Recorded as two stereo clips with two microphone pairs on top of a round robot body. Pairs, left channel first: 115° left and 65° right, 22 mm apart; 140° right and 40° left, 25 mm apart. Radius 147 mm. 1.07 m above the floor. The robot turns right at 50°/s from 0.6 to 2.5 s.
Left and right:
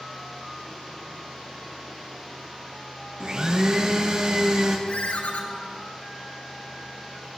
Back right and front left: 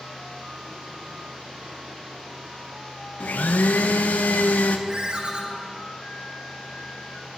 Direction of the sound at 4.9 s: 100° left.